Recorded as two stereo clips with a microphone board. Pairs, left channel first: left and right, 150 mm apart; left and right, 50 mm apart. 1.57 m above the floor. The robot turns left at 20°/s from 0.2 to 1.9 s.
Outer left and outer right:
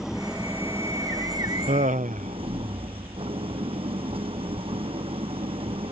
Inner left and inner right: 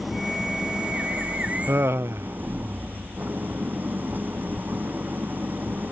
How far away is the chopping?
No chopping in this recording.